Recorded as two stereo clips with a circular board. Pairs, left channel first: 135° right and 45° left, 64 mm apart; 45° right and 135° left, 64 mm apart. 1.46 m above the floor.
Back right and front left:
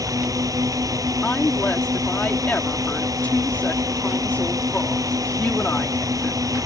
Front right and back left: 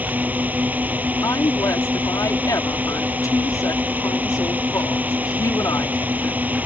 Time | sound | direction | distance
0.0 | a drone | 70° left | ?
1.2 | a woman speaking | 70° right | ?